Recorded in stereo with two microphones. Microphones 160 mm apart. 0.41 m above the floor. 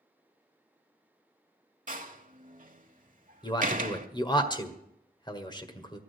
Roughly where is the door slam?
Right.